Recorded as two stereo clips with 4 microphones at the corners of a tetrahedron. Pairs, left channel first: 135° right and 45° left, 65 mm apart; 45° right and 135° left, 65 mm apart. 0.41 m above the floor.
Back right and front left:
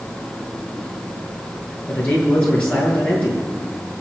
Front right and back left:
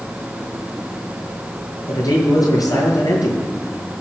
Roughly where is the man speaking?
Ahead right.